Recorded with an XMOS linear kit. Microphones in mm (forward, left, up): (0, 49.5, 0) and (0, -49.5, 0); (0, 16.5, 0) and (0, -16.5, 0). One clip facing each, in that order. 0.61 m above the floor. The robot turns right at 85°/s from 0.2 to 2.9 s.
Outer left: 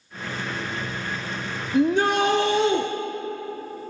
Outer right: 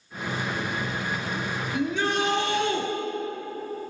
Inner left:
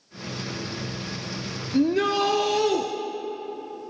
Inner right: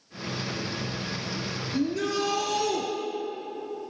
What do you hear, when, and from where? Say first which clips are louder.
1.7 s a shout: outer left 7 dB, inner left 6 dB; 60° left, 1.0 m; by 2.9 s 150° left, 1.0 m